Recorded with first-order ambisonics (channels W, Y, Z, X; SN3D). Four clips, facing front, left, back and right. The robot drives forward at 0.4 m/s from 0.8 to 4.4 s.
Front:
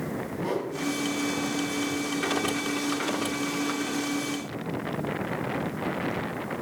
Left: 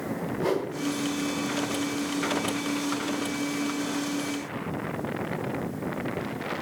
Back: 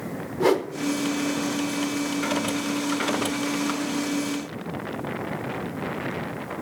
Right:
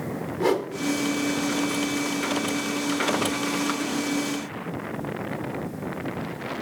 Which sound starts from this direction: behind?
A whoosh, at 0.4 s.